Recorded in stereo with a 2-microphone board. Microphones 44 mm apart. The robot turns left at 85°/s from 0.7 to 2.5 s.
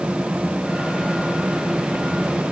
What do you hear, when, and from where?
Only background noise.